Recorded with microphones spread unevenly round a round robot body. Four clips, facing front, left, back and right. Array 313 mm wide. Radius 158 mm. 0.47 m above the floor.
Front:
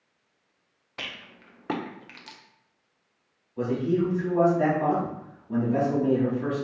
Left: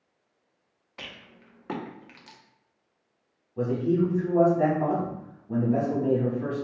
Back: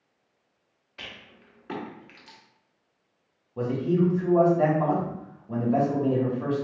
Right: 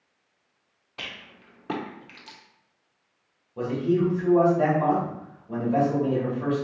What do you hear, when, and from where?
1.0 s a rattle: 25° right, 1.2 m
3.6 s a man speaking: 165° right, 2.5 m